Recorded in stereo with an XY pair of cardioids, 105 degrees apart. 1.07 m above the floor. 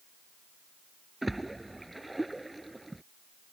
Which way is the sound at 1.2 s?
10° right.